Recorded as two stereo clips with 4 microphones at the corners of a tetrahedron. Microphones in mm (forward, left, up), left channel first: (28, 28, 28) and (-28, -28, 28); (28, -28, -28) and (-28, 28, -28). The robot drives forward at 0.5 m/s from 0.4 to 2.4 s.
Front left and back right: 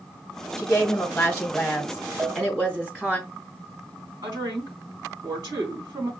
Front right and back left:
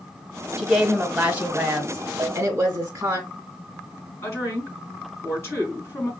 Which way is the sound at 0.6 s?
45° left.